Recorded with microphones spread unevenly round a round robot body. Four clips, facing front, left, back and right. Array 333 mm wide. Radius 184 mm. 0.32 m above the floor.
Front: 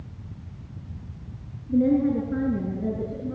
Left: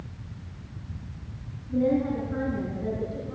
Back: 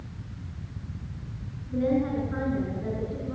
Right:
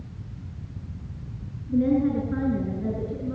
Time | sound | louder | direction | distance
1.7 | a woman speaking | right 3 dB, front 5 dB | 50° right | 6.5 m